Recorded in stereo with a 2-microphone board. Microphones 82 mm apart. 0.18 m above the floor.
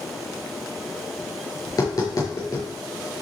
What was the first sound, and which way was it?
Tapping, 45° left (ahead or behind).